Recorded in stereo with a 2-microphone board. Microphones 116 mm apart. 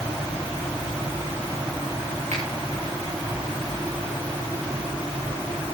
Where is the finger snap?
75° right (ahead or behind), 10 m.